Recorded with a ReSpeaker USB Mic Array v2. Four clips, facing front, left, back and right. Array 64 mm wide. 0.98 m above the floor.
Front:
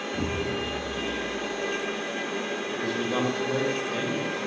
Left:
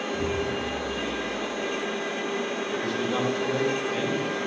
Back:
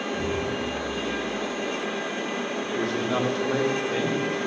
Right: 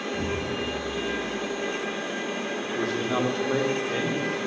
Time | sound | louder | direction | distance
0.1 | an explosion | left 2 dB, even | straight ahead | 0.6 m
2.6 | a man speaking | even, back 4 dB | 130° right | 3 m